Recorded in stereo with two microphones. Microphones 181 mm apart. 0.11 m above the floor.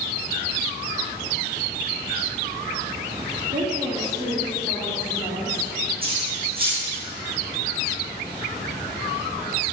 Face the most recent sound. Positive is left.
turn(degrees=-55)  # may be behind; listen again after turning